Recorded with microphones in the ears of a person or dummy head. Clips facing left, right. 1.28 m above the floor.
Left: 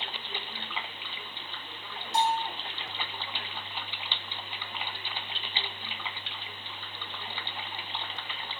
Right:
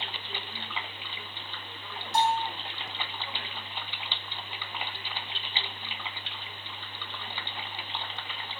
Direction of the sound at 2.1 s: 65° right (ahead or behind).